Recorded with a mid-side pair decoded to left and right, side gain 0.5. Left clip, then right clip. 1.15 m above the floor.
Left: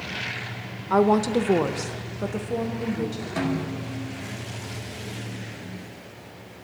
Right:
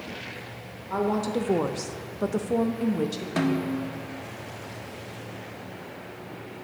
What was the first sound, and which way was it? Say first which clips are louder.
A woman speaking: left 7 dB; 60° left.